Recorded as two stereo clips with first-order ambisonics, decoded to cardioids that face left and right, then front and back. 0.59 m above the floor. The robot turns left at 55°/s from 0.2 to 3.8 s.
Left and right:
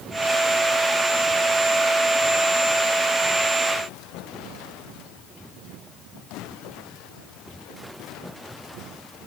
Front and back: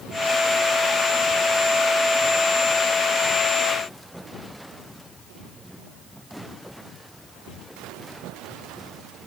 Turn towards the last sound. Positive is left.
No sound to turn to.